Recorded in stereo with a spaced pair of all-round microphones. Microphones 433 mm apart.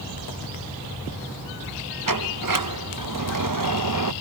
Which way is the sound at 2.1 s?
50° right (ahead or behind).